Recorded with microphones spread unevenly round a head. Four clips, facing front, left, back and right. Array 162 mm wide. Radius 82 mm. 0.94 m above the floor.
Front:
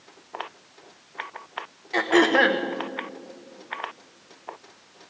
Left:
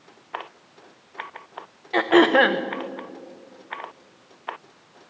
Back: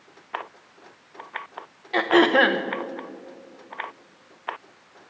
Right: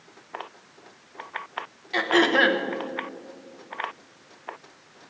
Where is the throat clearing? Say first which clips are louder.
Left 5 dB, back 2 dB; 135° left, 0.9 m.